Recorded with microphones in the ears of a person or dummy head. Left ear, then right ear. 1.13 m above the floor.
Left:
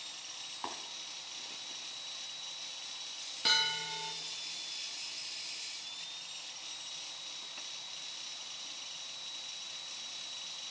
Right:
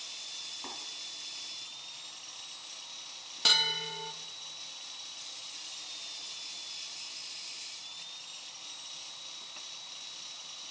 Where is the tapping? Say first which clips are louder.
Left 1 dB; 70° left (ahead or behind), 2.5 m.